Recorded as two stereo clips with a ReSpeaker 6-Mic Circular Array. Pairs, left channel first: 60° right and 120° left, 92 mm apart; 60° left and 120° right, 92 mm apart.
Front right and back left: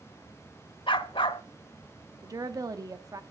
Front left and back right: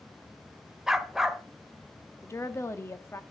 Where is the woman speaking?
105° left, 1.0 m.